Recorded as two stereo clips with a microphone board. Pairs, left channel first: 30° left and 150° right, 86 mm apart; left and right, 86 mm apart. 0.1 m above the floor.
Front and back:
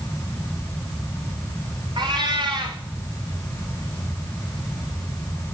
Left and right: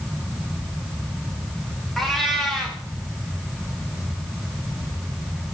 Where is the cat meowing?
Straight behind, 3.5 m.